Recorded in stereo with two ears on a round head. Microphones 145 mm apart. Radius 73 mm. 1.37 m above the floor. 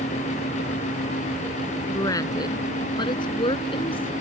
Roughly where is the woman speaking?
Left.